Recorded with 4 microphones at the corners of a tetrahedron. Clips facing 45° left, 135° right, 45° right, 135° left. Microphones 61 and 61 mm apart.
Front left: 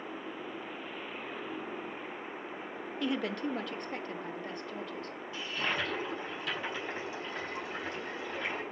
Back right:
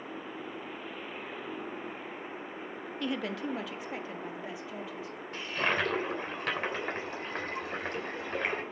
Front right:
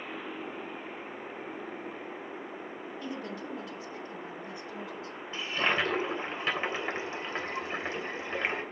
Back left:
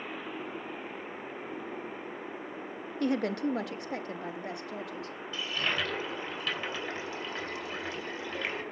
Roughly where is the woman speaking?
Behind left.